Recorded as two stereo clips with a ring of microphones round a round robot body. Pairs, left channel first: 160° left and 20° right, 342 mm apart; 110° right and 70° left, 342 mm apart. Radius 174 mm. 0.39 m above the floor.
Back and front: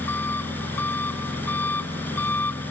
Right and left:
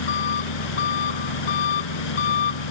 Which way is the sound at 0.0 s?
120° right.